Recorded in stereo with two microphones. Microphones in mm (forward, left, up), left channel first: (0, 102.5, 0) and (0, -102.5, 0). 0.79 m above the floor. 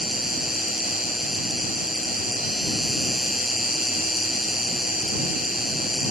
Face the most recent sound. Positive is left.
turn(degrees=0)  # may be behind; listen again after turning